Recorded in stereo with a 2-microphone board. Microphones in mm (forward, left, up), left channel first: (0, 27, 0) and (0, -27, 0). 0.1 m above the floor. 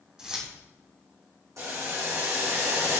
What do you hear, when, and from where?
0.2 s keys jangling: 15° right (ahead or behind), 3 m
1.6 s boiling: 75° right (ahead or behind), 4 m